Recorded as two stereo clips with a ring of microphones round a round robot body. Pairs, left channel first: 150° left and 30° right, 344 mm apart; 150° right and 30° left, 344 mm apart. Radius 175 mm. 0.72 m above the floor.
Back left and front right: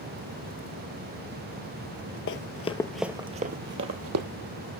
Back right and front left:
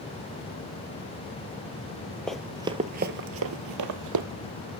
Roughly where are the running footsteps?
Behind left.